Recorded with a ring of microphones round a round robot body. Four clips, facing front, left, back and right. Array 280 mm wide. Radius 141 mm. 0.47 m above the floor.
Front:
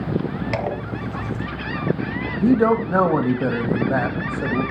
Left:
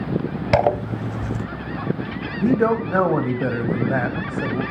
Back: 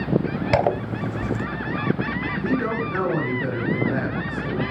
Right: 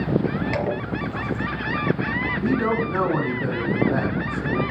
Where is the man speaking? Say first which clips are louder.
Left 5 dB, front 9 dB; 40° left, 3 m.